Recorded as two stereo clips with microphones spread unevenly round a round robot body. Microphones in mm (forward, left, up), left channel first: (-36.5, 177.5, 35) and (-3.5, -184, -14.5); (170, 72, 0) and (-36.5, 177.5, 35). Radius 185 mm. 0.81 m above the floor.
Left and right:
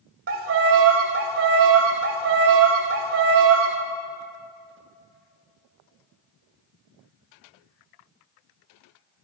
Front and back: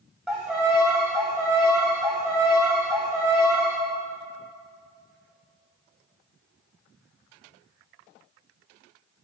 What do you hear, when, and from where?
0.3 s a violin: 130° right, 0.7 m